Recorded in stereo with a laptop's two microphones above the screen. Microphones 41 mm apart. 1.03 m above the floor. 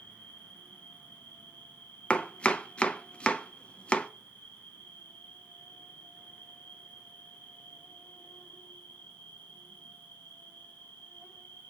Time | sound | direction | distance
0.0 | an insect | 60° left (ahead or behind) | 1.7 m
2.1 | chopping | 25° left (ahead or behind) | 0.5 m